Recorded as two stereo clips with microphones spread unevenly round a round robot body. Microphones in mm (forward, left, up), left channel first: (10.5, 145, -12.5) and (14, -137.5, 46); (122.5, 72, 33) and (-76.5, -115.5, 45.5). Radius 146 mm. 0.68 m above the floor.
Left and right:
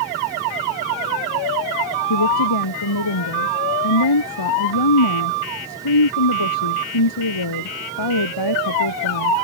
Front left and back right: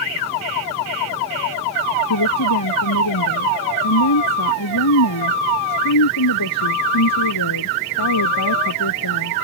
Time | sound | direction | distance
2.1 | a woman speaking | 75° left | ?